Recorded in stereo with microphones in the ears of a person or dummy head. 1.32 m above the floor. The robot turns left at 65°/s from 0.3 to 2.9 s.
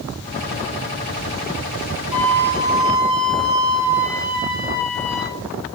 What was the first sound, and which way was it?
A flute, 80° right.